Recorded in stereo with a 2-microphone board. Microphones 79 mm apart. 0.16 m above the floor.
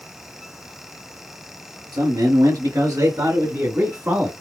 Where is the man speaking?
60° right (ahead or behind), 2.5 m; by 4.3 s 20° right (ahead or behind), 1.6 m.